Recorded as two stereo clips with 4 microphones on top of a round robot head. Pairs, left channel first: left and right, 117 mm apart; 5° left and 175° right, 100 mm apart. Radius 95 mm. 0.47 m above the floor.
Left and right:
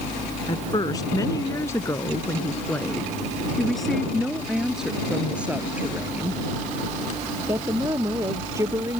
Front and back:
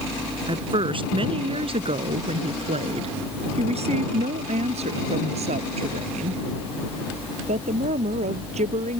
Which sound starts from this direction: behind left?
A woman speaking, at 0.5 s.